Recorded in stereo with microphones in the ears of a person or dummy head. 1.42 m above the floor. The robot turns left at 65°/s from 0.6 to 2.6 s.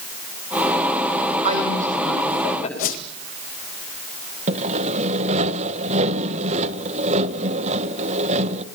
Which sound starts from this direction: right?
Sawing, at 4.5 s.